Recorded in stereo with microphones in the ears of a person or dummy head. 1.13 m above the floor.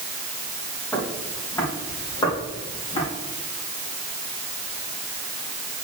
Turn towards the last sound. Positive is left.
turn(degrees=35)  # may be behind; listen again after turning